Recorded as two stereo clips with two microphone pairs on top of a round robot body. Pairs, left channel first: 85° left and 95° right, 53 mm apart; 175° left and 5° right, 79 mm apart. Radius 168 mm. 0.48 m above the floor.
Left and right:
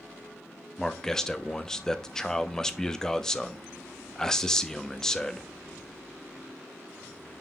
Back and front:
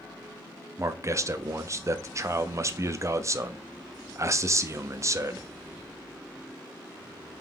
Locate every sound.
0.8 s a man speaking: 10° left, 0.9 m